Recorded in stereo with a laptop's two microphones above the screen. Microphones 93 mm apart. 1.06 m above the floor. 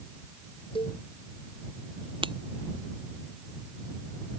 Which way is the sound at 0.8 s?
85° left.